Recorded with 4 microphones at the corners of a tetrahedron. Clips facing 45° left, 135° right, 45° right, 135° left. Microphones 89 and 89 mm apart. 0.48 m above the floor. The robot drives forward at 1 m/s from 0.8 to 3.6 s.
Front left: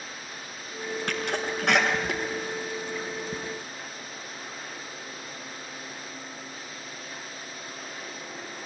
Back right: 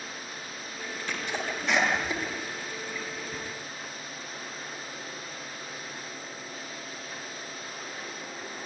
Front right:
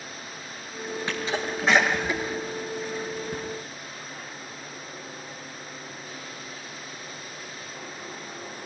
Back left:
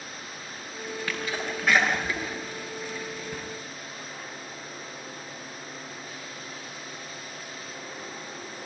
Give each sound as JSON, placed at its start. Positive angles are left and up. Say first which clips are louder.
{"t": 1.1, "sound": "a sneeze", "louder": "front left 2 dB, front right 3 dB", "azimuth_deg": 20, "distance_m": 7.0}